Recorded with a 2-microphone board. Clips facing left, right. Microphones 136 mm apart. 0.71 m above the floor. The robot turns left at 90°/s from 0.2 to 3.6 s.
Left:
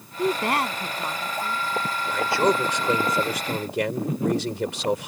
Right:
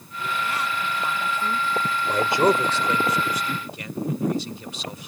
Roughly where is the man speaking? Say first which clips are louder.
Right 2 dB; behind right.